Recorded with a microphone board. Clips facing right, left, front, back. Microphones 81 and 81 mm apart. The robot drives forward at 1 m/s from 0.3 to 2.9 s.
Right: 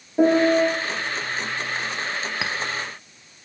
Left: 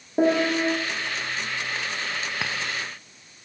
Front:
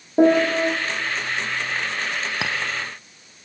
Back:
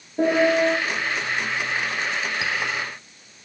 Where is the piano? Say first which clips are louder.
Right 4 dB, front 2 dB; 25° left, 10 m.